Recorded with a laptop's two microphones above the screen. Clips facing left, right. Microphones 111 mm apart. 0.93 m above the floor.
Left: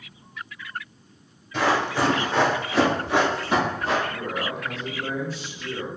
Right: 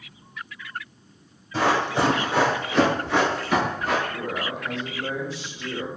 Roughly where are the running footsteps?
Right.